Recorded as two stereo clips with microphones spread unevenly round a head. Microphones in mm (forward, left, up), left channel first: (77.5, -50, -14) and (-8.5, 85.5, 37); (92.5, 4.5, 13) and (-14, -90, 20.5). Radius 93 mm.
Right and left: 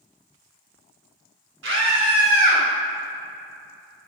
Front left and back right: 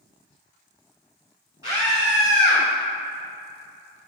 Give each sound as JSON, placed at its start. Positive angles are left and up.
{"t": 1.6, "sound": "a scream", "azimuth_deg": 145, "distance_m": 2.5}